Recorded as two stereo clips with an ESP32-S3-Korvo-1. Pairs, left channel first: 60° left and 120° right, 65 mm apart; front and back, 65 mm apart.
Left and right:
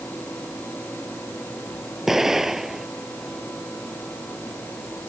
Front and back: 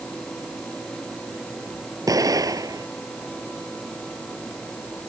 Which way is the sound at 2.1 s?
155° left.